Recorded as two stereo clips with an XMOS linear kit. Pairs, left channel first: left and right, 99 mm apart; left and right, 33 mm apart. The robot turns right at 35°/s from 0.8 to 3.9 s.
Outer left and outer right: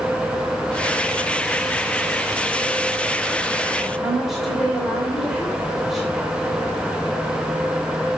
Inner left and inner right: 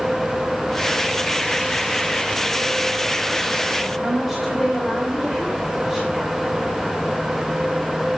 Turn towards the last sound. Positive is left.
turn(degrees=-5)  # may be behind; listen again after turning